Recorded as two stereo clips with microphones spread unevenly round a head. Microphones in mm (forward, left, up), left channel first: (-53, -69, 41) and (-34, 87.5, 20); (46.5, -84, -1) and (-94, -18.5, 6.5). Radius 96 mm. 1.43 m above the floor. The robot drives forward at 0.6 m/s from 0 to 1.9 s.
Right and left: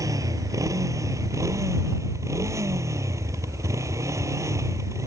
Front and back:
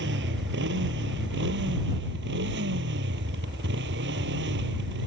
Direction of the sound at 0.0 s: 155° left.